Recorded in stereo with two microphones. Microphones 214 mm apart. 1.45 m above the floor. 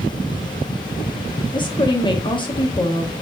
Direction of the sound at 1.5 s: 20° left (ahead or behind).